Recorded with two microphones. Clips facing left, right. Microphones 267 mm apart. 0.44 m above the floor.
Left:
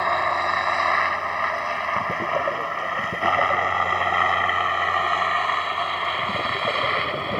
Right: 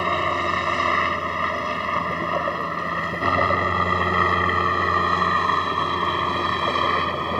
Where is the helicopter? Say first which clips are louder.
Right 2 dB; 35° right (ahead or behind); by 7.4 s 55° right (ahead or behind).